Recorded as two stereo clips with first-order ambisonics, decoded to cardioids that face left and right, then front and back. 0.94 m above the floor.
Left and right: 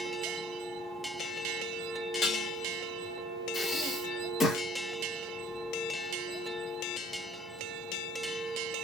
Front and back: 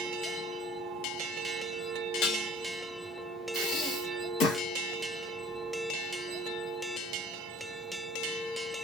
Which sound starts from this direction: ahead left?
Dishes clattering, at 2.2 s.